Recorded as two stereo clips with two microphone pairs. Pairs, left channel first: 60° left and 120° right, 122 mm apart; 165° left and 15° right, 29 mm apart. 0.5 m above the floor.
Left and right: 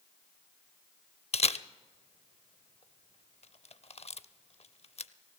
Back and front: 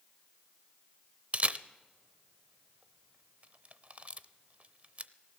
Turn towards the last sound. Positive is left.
turn(degrees=25)